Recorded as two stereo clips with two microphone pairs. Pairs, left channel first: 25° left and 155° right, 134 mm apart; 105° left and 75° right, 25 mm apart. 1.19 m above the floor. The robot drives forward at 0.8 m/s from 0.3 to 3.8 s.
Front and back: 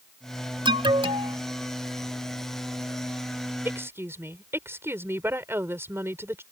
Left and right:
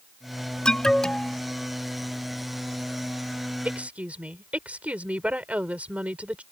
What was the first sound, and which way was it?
An alarm, 155° left.